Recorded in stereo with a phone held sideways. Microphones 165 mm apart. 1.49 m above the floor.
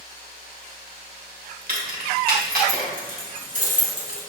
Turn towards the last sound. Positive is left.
turn(degrees=-40)  # may be behind; listen again after turning